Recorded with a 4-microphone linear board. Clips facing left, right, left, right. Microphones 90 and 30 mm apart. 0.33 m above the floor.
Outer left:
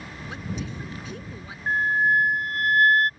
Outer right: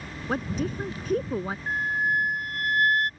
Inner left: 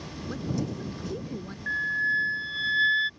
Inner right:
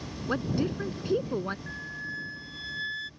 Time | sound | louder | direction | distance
0.3 | a woman speaking | outer right 7 dB, inner right 3 dB | 50° right (ahead or behind) | ?
1.7 | a flute | outer left 6 dB, inner left 11 dB | 45° left (ahead or behind) | ?